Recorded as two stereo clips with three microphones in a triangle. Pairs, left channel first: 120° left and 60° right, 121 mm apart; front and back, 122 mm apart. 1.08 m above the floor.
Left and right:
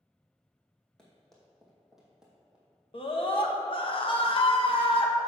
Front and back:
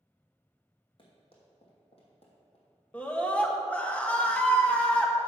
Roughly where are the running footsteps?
Ahead left.